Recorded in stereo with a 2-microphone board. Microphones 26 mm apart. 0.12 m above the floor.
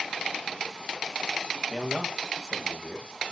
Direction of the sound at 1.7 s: 10° right (ahead or behind).